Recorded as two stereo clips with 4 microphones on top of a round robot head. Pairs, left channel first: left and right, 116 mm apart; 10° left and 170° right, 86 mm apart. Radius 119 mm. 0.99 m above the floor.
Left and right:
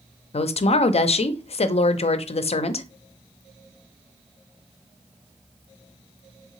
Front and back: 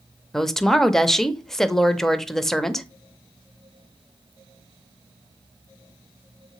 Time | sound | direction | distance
0.3 | a woman speaking | 95° left | 0.6 m